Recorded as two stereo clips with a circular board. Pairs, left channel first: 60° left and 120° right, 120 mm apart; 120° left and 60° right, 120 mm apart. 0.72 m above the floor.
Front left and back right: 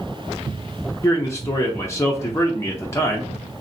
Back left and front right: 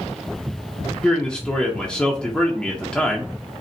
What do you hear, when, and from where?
1.0 s a man speaking: 50° left, 0.6 m